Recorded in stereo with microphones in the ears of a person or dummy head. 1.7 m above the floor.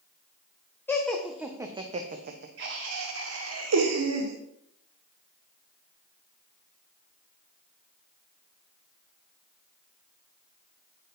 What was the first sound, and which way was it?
Laughter, 10° left (ahead or behind).